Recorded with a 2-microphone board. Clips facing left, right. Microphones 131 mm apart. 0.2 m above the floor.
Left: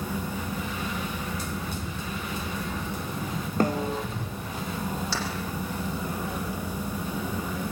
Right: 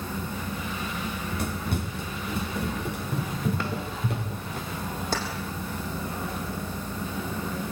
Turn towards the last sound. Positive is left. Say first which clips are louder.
# right 7 dB
turn(degrees=-50)  # may be behind; listen again after turning